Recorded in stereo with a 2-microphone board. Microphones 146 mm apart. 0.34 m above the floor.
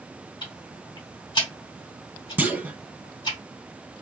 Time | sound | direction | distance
0.4 | ticking | 30° left (ahead or behind) | 2 m
2.4 | a clunk | 15° right (ahead or behind) | 0.5 m